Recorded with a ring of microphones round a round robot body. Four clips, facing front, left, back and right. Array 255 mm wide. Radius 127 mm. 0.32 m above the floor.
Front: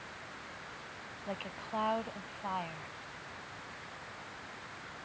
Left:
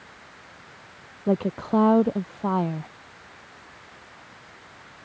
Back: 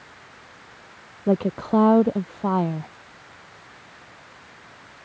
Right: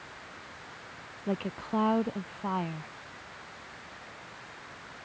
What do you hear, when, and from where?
1.3 s a woman speaking: 150° left